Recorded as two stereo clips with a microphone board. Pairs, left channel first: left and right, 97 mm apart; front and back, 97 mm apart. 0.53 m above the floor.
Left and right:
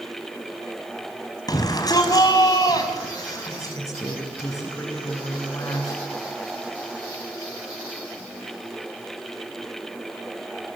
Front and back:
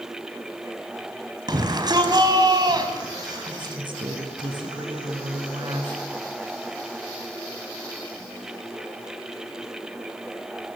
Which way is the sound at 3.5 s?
145° left.